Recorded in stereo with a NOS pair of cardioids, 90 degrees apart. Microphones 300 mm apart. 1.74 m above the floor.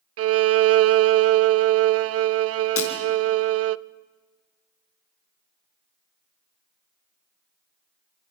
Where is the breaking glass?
55° left, 4.5 m.